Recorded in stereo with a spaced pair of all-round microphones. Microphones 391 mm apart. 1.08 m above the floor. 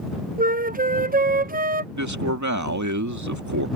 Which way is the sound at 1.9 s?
45° right (ahead or behind).